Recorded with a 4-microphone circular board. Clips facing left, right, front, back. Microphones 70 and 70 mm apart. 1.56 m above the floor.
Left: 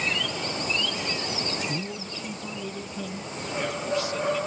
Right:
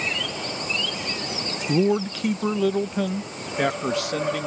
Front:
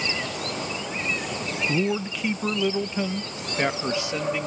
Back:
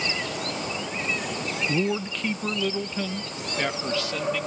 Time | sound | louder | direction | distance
1.7 | a man speaking | right 13 dB, front 1 dB | 90° right | ?